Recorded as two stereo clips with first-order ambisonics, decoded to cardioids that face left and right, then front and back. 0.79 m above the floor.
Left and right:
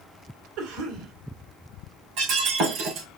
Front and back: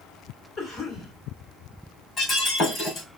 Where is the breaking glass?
65° right, 3 m.